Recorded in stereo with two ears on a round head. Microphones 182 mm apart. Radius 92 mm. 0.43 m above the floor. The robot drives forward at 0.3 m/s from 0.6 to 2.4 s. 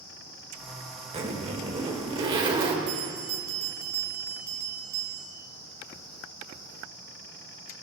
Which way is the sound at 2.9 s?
75° right (ahead or behind).